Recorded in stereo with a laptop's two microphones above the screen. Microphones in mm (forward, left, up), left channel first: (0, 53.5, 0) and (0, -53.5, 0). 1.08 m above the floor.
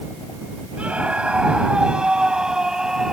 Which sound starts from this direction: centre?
A scream, at 0.8 s.